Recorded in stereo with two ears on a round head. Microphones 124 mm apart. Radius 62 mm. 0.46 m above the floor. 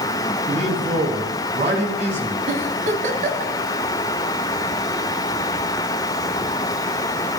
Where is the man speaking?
50° right (ahead or behind), 4 m.